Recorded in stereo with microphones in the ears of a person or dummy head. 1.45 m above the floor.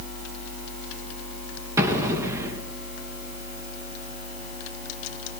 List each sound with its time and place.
1.8 s an explosion: 15° right (ahead or behind), 4 m